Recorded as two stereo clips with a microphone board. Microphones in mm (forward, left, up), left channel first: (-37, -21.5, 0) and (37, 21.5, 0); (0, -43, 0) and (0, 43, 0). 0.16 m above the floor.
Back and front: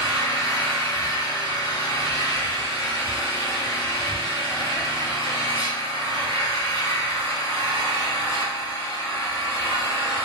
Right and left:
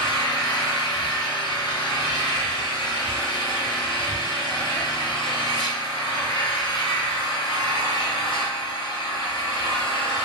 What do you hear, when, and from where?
0.0 s an engine running: 95° right, 1.1 m